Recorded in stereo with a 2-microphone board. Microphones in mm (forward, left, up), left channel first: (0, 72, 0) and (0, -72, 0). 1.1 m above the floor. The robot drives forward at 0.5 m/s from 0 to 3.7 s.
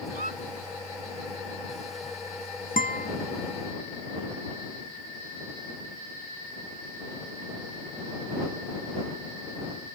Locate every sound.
0.1 s a squeak: 75° right (ahead or behind); by 0.4 s 80° right
2.8 s a guitar: 75° left (ahead or behind)